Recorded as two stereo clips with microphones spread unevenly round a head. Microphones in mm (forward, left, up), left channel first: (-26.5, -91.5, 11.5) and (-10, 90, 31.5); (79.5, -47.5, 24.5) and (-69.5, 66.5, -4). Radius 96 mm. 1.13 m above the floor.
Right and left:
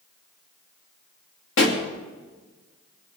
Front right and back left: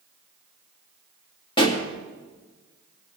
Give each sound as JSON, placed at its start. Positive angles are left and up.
{"t": 1.6, "sound": "a pop", "azimuth_deg": -105, "distance_m": 2.5}